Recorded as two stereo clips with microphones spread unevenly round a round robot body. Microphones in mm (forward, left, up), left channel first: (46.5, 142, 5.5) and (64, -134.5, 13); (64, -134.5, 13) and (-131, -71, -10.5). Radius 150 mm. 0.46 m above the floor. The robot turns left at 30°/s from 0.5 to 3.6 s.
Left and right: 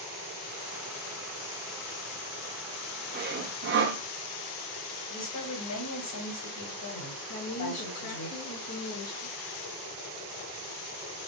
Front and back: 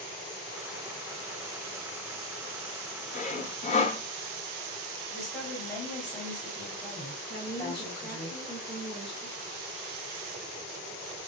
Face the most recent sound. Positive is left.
turn(degrees=80)